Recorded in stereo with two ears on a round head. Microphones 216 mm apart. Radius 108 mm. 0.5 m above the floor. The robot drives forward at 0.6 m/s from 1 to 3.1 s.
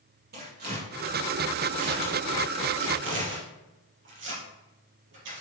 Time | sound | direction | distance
0.3 | tearing paper | 40° right (ahead or behind) | 5.5 m